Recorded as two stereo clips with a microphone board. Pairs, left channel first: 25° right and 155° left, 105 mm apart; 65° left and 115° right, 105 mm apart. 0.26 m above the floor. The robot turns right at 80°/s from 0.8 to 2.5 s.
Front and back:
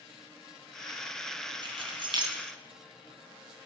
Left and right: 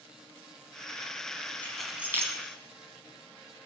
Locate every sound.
1.6 s keys jangling: 140° left, 1.8 m; by 2.4 s 160° right, 1.8 m